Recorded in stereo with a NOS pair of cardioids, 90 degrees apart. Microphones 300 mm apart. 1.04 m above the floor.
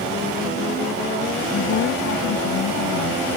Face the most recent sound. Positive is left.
turn(degrees=70)